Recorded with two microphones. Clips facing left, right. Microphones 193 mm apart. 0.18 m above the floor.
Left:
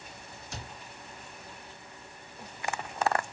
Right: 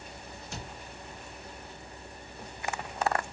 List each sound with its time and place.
0.5 s a cupboard door: centre (ahead or behind), 2.5 m